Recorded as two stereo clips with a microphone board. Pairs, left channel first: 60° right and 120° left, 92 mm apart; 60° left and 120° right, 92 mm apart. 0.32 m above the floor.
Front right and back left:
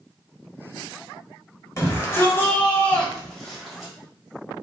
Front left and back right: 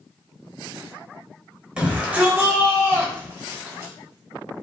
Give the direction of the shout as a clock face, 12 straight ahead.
2 o'clock.